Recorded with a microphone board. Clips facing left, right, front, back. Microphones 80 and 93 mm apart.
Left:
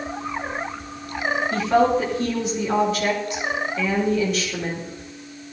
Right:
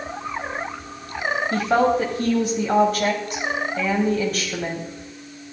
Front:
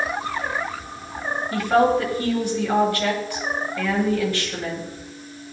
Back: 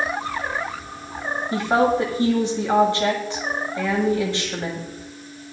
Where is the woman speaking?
115° right, 2.5 m.